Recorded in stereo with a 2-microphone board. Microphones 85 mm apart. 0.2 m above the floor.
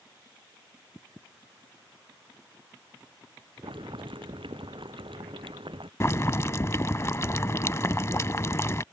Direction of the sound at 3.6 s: 85° right.